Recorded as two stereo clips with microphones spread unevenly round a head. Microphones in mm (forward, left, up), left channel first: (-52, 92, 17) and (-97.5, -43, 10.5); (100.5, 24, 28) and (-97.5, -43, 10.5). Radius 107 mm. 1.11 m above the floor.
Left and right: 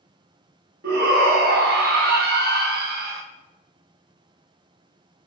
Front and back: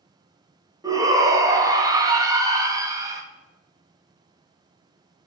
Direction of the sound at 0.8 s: 90° right.